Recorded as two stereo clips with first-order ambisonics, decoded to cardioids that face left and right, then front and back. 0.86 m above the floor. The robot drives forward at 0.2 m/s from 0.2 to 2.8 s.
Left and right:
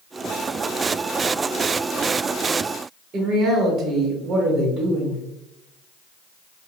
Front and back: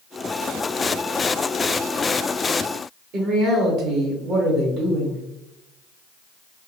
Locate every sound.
3.1 s a man speaking: 150° right, 0.9 m